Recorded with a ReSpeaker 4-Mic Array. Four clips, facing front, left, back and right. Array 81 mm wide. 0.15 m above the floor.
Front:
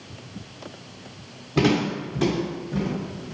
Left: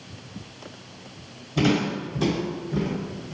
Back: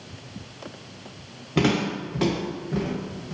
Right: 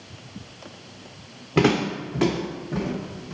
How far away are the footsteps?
About 1.9 m.